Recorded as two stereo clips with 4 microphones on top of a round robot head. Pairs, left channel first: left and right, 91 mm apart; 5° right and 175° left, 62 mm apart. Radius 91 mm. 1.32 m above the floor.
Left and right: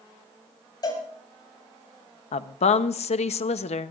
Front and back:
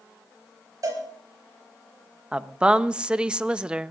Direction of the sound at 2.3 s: 95° left.